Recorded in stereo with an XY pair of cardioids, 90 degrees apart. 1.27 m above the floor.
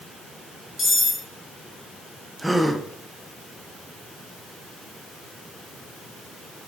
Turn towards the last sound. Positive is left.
turn(degrees=-10)